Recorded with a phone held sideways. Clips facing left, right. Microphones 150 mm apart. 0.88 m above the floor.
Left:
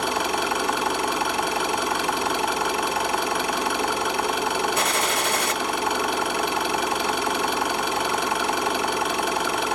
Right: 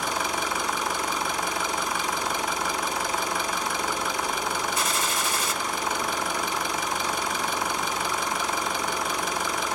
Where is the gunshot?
60° left (ahead or behind), 1.2 m.